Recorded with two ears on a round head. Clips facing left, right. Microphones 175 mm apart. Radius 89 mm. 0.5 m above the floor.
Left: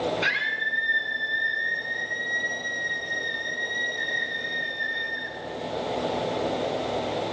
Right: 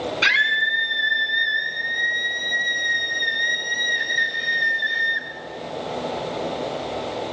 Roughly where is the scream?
Right.